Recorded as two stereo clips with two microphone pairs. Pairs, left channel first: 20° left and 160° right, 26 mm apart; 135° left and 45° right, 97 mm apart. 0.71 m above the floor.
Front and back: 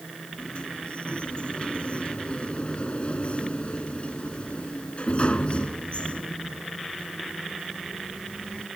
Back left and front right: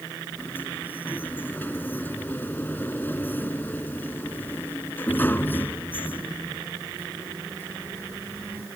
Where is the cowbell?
No cowbell in this recording.